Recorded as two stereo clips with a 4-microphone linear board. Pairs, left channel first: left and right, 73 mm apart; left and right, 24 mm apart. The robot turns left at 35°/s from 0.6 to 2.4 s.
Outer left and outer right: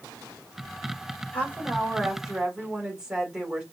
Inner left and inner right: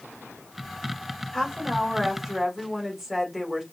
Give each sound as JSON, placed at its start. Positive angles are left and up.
{"t": 1.3, "sound": "a woman speaking", "azimuth_deg": 30, "distance_m": 1.7}